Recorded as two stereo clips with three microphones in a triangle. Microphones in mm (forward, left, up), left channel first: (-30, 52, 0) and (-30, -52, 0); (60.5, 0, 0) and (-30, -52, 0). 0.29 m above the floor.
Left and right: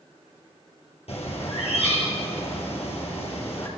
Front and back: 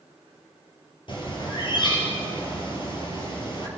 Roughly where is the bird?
Left.